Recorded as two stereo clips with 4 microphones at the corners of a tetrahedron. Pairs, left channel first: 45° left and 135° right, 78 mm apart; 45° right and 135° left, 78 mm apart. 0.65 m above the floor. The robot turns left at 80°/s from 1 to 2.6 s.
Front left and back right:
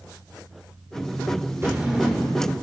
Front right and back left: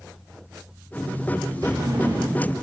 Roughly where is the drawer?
Behind.